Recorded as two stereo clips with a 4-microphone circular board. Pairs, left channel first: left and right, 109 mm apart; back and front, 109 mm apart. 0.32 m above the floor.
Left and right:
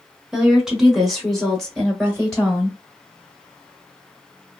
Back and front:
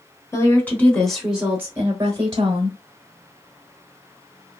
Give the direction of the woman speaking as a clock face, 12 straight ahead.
6 o'clock.